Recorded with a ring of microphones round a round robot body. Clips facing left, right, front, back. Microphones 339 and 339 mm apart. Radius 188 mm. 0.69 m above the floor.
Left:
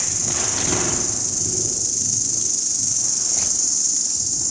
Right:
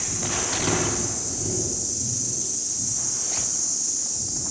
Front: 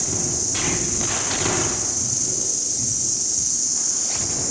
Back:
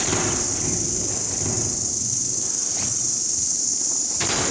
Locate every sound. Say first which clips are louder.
0.0 s an insect: even, back 4 dB; 95° left, 2.5 m